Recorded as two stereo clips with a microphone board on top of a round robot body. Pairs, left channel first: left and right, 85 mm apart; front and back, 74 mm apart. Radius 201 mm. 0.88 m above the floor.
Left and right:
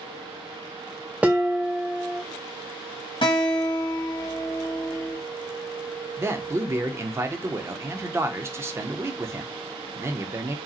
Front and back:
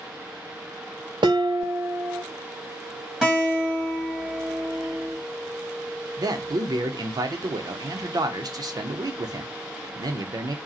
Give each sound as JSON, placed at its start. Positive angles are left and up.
{"t": 1.2, "sound": "dishes clattering", "azimuth_deg": -165, "distance_m": 0.5}
{"t": 3.2, "sound": "a guitar", "azimuth_deg": 100, "distance_m": 1.9}
{"t": 6.2, "sound": "a man speaking", "azimuth_deg": -150, "distance_m": 0.8}